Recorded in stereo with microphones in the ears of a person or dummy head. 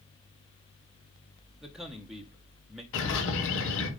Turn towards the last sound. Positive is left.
turn(degrees=75)  # may be behind; listen again after turning